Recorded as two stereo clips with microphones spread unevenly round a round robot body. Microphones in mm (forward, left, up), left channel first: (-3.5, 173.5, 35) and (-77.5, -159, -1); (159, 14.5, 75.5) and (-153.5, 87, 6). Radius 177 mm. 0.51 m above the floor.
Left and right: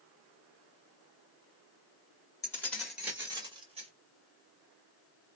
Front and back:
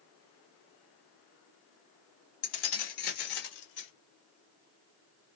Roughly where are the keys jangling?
Ahead.